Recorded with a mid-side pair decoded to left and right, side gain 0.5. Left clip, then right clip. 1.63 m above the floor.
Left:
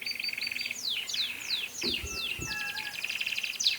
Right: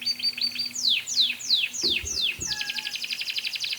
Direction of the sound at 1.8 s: 5° right.